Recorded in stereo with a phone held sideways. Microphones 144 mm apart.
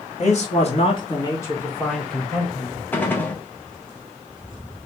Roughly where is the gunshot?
Centre.